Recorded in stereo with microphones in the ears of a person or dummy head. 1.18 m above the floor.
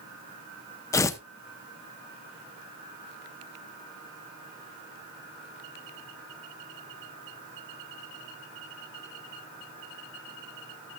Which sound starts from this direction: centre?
Tearing paper, at 0.9 s.